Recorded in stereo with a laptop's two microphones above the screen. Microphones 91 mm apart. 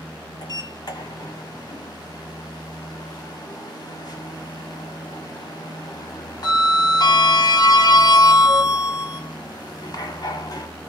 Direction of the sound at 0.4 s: 45° left (ahead or behind).